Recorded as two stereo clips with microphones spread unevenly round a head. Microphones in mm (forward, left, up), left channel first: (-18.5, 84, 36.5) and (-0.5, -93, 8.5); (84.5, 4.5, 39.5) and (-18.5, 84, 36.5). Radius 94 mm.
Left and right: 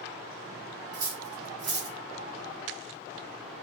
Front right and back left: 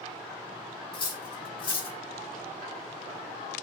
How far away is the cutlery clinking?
About 0.9 m.